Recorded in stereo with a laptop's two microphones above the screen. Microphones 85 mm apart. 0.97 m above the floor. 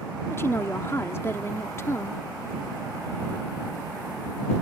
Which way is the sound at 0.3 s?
30° left (ahead or behind).